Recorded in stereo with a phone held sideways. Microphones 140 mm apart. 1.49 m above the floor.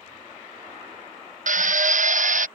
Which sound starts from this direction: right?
A drill, at 1.5 s.